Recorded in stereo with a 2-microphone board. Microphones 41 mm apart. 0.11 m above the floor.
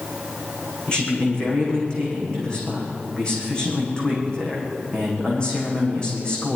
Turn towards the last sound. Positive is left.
turn(degrees=25)  # may be behind; listen again after turning